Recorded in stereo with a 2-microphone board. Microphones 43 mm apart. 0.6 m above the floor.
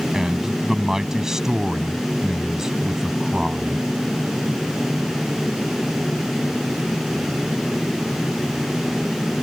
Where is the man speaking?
10° right (ahead or behind).